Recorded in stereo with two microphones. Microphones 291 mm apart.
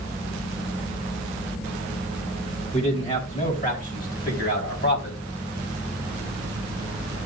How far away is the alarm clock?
No alarm clock in this recording.